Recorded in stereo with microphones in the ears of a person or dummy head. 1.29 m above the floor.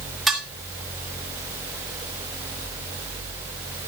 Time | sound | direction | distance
0.3 | dishes clattering | centre (ahead or behind) | 3 m